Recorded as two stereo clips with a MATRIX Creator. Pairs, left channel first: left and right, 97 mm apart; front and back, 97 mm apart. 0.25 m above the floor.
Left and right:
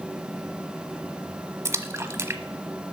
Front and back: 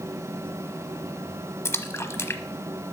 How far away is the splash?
About 1.0 m.